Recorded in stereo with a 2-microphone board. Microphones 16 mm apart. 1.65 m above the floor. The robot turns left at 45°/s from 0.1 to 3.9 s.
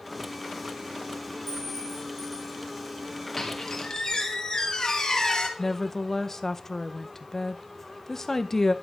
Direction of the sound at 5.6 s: 25° left (ahead or behind).